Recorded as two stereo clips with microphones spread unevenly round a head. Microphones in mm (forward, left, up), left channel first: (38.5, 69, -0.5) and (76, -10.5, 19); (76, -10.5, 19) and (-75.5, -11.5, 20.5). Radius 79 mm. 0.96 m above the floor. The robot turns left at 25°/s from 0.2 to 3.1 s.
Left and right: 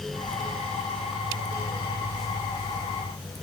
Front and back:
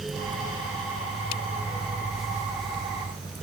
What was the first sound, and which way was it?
Only background noise.